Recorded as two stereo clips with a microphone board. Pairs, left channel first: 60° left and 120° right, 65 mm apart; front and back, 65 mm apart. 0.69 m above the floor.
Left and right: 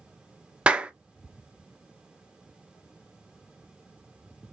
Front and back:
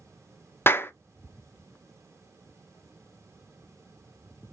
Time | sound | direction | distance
0.7 | a clap | 50° right | 0.5 m